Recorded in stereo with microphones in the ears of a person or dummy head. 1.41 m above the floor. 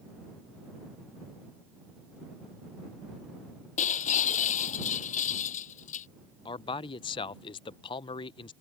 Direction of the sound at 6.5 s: 30° left (ahead or behind).